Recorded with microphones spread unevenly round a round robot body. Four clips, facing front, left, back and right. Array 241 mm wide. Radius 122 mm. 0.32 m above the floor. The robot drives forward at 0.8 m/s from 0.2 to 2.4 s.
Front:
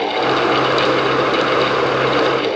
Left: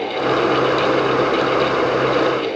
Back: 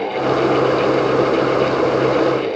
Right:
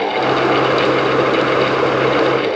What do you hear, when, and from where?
Only background noise.